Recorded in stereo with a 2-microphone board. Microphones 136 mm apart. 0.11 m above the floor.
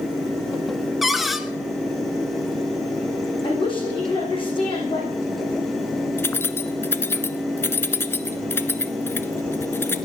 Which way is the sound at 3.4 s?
40° left (ahead or behind).